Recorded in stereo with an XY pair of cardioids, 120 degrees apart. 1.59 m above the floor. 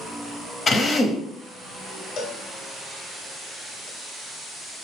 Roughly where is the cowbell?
Ahead left.